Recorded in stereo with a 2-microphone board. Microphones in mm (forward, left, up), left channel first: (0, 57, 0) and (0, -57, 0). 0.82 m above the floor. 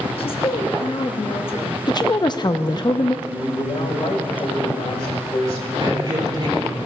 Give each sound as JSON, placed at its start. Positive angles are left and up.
{"t": 0.2, "sound": "a woman speaking", "side_deg": 55, "distance_m": 1.1}
{"t": 1.9, "sound": "a woman speaking", "side_deg": 40, "distance_m": 0.5}
{"t": 3.2, "sound": "a man speaking", "side_deg": 60, "distance_m": 2.0}
{"t": 5.8, "sound": "a man speaking", "side_deg": -45, "distance_m": 3.5}